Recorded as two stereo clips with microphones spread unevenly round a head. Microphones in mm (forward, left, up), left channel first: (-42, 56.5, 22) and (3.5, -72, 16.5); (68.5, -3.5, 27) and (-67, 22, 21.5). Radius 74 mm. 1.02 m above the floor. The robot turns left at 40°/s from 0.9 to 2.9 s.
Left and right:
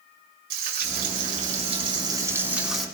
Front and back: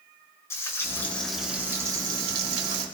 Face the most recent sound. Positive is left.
turn(degrees=-165)